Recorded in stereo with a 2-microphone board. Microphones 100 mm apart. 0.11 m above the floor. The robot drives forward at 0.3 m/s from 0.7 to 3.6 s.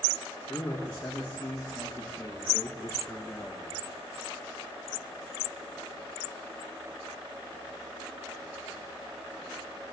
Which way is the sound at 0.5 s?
20° left (ahead or behind).